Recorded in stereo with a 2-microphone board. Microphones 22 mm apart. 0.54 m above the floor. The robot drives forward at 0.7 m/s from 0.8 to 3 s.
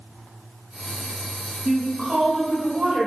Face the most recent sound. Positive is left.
turn(degrees=-20)  # may be behind; listen again after turning